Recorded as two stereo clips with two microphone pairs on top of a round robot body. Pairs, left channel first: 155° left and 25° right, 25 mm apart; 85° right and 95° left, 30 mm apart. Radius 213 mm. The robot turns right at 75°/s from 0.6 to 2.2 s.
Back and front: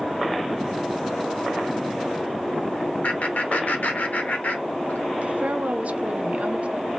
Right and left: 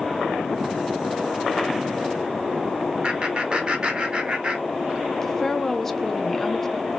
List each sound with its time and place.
3.0 s laughter: 150° left, 1.3 m
5.2 s a woman speaking: 5° right, 0.9 m